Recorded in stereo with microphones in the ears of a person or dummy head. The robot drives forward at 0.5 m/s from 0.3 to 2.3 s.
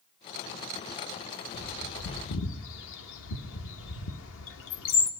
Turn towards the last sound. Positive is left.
turn(degrees=70)  # may be behind; listen again after turning